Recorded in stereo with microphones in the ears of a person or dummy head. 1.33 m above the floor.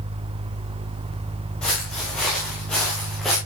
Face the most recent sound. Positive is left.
turn(degrees=0)  # may be behind; listen again after turning